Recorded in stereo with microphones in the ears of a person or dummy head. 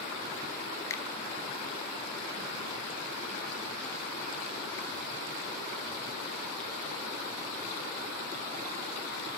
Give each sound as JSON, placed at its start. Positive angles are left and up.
{"t": 0.9, "sound": "a finger snap", "side_deg": 20, "distance_m": 0.5}